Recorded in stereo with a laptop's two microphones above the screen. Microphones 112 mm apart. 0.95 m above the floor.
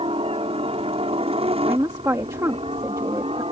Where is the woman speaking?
30° right (ahead or behind).